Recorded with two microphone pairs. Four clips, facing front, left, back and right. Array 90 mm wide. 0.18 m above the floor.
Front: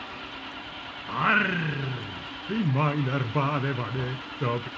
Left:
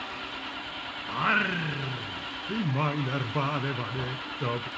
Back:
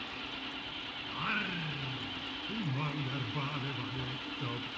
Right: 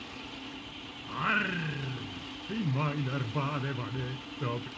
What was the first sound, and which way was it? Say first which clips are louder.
An engine running: left 6 dB, front 4 dB; 60° left.